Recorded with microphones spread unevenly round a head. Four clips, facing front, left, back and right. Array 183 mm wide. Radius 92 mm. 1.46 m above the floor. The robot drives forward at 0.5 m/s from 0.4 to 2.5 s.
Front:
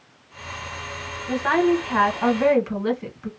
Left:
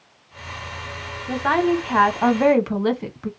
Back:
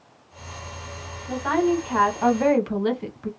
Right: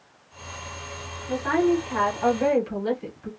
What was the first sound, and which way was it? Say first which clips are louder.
A woman speaking: left 2 dB, front 2 dB; 60° left.